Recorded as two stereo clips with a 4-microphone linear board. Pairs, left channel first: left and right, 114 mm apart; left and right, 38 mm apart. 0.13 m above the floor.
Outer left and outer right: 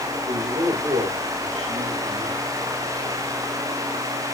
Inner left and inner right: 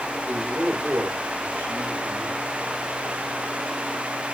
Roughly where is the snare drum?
No snare drum in this recording.